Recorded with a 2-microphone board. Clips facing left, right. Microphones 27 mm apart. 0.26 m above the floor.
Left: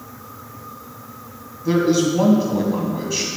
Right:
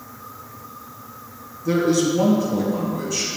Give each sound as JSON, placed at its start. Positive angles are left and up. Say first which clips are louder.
{"t": 1.6, "sound": "a man speaking", "louder": "left 2 dB", "side_deg": 30, "distance_m": 1.7}